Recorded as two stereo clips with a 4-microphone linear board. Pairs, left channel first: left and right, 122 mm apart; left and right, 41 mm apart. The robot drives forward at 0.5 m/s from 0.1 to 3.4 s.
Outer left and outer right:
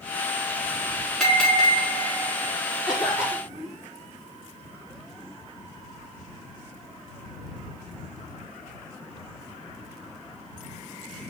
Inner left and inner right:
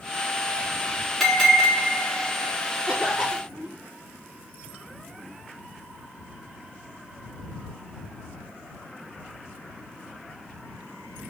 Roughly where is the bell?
Centre.